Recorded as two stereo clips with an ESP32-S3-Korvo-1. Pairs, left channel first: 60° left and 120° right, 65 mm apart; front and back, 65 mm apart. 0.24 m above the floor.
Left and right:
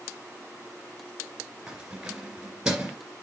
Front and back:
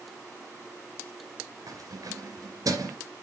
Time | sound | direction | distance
1.7 | keys jangling | 165° left | 2.5 m